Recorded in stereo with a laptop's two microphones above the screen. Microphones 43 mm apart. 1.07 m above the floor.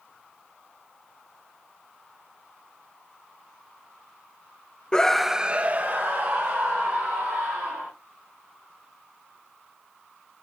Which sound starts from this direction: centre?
A scream, at 4.9 s.